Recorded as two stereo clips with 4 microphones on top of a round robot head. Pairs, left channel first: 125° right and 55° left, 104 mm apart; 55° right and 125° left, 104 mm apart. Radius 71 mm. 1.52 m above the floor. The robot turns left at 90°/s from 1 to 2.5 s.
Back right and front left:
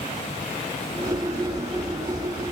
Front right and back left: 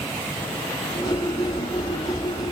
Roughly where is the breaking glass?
I don't hear breaking glass.